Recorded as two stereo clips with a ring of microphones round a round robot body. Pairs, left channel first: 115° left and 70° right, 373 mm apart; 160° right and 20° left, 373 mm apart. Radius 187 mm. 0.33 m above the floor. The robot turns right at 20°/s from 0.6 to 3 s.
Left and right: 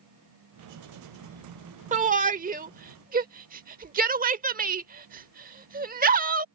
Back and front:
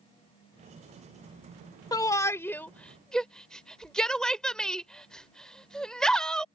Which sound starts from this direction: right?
A shout, at 1.9 s.